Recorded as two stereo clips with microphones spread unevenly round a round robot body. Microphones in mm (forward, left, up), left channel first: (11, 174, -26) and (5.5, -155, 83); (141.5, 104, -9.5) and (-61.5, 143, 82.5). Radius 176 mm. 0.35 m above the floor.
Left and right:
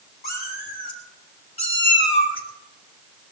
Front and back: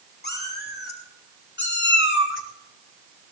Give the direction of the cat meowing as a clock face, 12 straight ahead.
11 o'clock.